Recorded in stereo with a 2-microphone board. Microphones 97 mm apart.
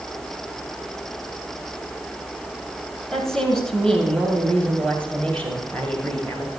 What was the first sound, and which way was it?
A woman speaking, 5° left (ahead or behind).